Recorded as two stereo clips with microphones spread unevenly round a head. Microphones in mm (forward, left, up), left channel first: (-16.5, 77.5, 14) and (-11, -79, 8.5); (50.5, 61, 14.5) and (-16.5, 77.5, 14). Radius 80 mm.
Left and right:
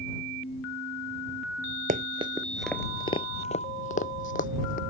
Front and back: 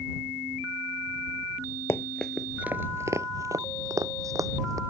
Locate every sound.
1.9 s running footsteps: 70° right; by 4.8 s 130° left